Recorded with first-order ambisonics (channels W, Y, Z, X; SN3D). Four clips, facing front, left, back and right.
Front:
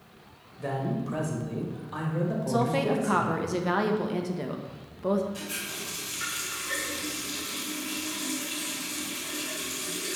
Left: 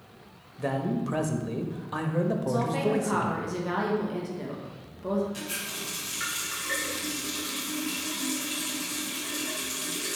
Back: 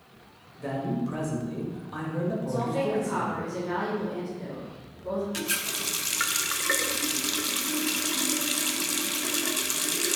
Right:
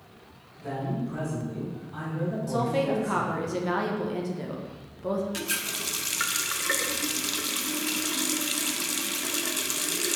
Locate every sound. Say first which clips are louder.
0.6 s a man speaking: left 3 dB, back 1 dB; 85° left, 1.1 m
2.5 s a woman speaking: even, front 4 dB; 10° right, 0.8 m
5.3 s a running tap: right 4 dB, back 5 dB; 145° right, 0.7 m